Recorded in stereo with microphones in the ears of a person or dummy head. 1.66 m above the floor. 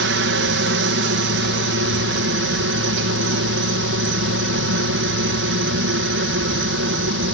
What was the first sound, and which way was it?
A helicopter, 60° right (ahead or behind).